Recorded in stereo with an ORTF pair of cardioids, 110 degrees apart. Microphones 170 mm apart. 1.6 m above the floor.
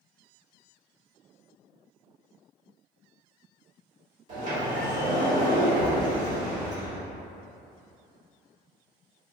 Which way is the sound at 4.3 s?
50° right.